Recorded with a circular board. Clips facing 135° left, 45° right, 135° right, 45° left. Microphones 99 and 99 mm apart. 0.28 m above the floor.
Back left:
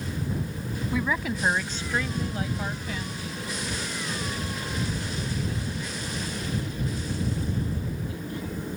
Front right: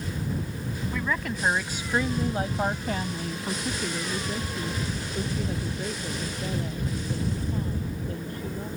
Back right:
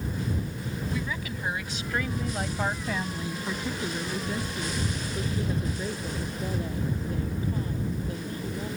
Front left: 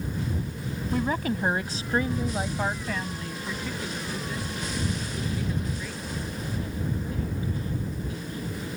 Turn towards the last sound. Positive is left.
turn(degrees=-85)